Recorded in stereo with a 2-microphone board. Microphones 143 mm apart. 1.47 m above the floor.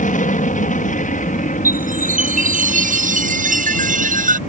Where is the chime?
65° right (ahead or behind).